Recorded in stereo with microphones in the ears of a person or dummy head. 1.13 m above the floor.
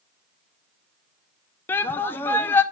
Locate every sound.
1.7 s a shout: 15° left (ahead or behind), 0.5 m